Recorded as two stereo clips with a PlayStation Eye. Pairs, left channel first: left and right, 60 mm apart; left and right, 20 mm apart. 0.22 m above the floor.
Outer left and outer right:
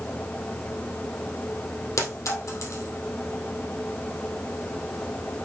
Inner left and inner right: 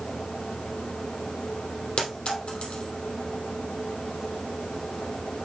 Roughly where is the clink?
Left.